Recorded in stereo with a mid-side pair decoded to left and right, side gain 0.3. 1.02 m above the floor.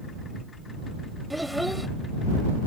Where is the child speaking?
Straight ahead.